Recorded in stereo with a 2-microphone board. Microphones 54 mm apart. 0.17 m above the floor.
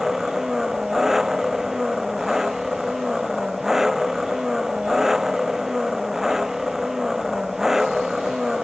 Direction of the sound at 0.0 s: 5° right (ahead or behind).